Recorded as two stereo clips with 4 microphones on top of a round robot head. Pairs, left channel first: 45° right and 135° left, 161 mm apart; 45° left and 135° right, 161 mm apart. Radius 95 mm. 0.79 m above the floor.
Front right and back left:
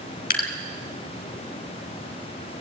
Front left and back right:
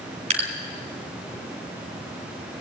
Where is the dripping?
80° right, 3 m.